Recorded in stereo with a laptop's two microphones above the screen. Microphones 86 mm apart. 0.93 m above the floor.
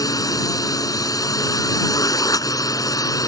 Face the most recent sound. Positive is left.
turn(degrees=45)  # may be behind; listen again after turning